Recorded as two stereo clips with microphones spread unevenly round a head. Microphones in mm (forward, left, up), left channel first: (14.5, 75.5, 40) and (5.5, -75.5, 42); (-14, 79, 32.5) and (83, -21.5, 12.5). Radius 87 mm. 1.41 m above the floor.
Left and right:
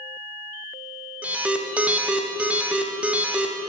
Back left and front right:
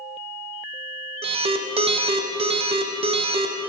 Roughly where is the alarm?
Ahead.